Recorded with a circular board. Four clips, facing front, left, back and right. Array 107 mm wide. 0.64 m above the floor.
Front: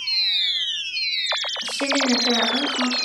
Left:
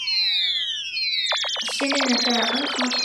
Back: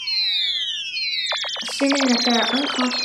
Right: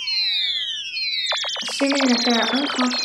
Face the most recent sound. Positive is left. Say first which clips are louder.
# right 5 dB, back 4 dB
turn(degrees=-130)